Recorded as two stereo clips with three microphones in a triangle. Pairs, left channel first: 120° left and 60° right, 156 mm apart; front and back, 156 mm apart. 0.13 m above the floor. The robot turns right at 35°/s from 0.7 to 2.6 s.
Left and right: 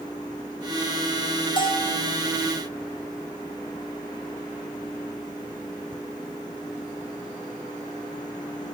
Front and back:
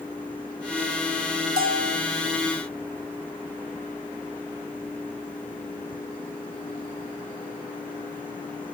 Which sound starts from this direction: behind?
A bell, at 1.6 s.